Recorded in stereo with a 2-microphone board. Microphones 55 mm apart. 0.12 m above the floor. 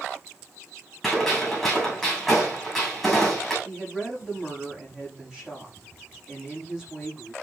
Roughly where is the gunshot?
Centre.